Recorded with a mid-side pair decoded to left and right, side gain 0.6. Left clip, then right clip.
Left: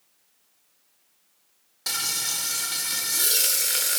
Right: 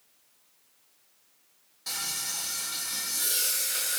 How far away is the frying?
About 0.7 m.